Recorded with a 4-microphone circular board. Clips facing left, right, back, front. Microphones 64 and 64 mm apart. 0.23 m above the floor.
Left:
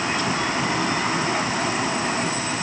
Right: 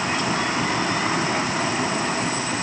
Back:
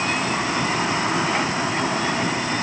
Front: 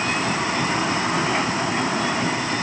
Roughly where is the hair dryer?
I don't hear a hair dryer.